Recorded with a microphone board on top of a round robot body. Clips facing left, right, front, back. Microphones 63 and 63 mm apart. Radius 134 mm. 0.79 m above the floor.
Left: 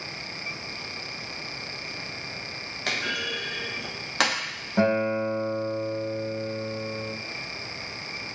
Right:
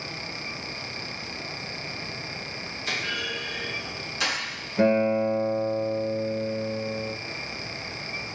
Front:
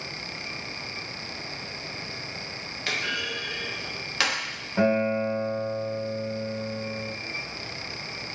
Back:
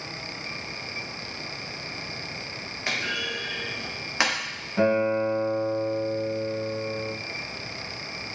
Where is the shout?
No shout in this recording.